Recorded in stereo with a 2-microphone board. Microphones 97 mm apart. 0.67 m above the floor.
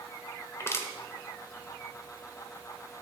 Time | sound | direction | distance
0.6 | crushing | 25° left (ahead or behind) | 1.1 m